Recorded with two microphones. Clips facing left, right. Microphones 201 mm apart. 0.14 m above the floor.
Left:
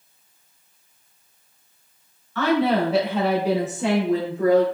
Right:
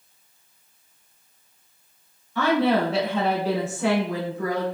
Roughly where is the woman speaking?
Centre.